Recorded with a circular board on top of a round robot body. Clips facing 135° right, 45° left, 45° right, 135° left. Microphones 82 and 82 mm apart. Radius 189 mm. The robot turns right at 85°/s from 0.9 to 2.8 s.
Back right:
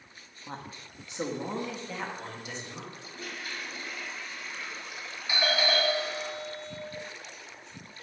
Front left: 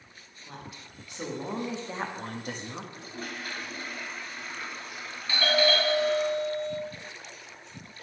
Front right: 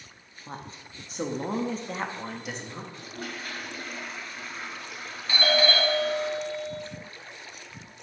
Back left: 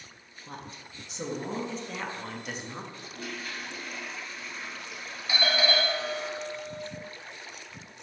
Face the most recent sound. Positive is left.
turn(degrees=-170)